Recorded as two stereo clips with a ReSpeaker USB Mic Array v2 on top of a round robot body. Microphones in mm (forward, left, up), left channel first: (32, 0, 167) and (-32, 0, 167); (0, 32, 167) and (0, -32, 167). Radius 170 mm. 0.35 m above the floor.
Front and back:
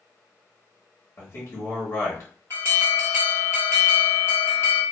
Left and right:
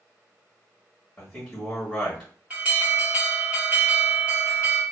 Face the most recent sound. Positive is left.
turn(degrees=-30)